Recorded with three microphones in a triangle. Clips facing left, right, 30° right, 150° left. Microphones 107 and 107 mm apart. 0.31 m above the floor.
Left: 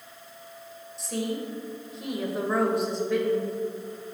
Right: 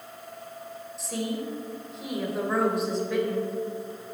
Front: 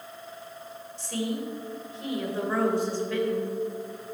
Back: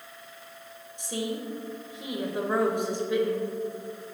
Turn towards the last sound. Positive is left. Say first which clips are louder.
# left 1 dB, front 1 dB
turn(degrees=-175)